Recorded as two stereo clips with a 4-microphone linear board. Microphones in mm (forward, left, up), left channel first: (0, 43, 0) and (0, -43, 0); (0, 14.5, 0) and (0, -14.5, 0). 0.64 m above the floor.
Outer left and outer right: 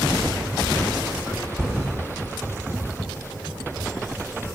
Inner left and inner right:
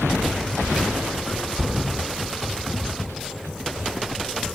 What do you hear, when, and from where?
1.6 s a thud: 5° left (ahead or behind), 0.7 m